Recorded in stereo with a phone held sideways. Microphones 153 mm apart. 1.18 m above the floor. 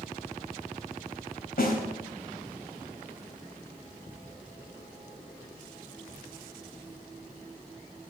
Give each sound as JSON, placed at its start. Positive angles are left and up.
{"t": 1.6, "sound": "a snare drum", "side_deg": 80, "distance_m": 3.5}